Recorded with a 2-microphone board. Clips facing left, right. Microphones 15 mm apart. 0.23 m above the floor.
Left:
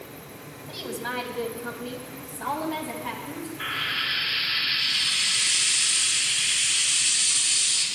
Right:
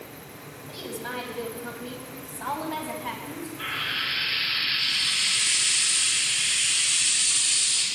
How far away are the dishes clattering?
No dishes clattering in this recording.